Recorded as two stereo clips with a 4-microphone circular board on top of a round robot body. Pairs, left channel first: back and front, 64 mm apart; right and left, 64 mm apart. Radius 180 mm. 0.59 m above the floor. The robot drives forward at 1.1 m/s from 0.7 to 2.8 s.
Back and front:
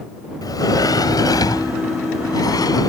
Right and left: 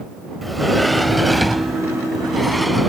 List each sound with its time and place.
0.4 s a sliding door: straight behind